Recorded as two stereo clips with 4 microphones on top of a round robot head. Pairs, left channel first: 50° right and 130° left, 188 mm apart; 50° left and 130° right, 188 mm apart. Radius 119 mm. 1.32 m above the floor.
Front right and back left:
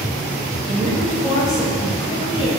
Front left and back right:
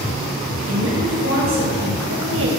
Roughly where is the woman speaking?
Behind right.